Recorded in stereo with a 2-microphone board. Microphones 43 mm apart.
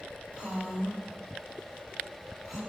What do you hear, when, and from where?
0.3 s a woman speaking: 25° right (ahead or behind), 1.6 m; by 2.6 s centre (ahead or behind), 3 m